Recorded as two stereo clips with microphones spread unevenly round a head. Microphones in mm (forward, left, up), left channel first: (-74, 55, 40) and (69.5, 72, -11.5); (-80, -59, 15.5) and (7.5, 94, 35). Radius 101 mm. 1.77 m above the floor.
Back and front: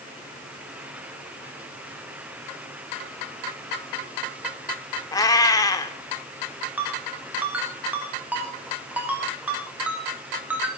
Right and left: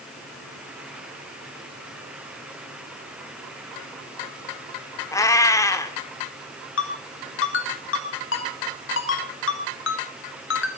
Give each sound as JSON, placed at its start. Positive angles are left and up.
{"t": 5.1, "sound": "a cat meowing", "azimuth_deg": 165, "distance_m": 1.7}
{"t": 6.8, "sound": "a ringtone", "azimuth_deg": -85, "distance_m": 2.5}